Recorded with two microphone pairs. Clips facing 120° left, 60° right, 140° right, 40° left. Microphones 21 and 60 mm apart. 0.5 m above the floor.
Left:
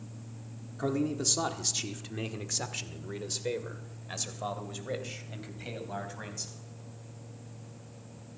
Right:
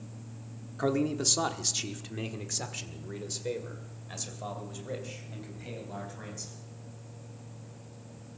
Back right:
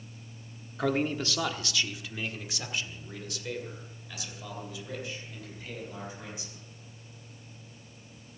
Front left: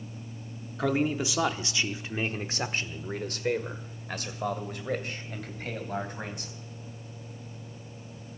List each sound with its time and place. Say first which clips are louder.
0.8 s a man speaking: right 2 dB, front left 2 dB; 45° right, 1.1 m; by 6.6 s 65° left, 3.5 m